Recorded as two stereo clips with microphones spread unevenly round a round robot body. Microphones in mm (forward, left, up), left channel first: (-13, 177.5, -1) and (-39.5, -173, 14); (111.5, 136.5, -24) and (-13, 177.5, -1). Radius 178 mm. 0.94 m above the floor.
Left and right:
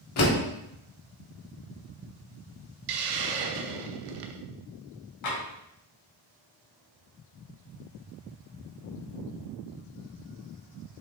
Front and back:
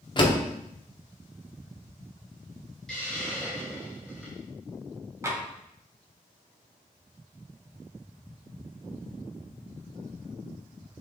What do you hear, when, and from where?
0.2 s a door slam: 35° left, 1.6 m
2.9 s a hiss: 100° right, 0.8 m
5.2 s tapping: 95° left, 2.5 m